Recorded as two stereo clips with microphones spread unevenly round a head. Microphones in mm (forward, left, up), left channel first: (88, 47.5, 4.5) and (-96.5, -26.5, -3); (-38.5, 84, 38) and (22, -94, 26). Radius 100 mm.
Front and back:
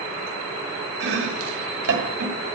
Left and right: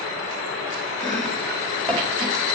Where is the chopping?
170° right, 1.7 m.